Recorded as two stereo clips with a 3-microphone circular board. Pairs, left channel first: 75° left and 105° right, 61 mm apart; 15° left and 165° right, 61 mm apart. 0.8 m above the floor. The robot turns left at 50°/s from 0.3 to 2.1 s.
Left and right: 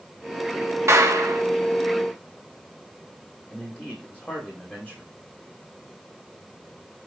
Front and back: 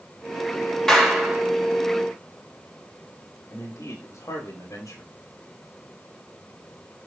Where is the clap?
70° right, 1.9 m; by 1.4 s 95° right, 1.9 m.